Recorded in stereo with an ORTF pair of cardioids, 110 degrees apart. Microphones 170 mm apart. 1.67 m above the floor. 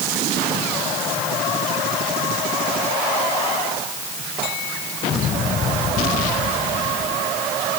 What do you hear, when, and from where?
Only background noise.